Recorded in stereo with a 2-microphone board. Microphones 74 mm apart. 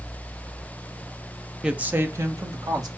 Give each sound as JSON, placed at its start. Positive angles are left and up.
{"t": 1.6, "sound": "a woman speaking", "side_deg": -10, "distance_m": 0.8}